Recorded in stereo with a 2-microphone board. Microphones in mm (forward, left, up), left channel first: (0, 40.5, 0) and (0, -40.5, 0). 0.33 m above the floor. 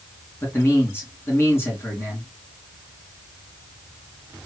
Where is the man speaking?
30° left (ahead or behind), 3 m.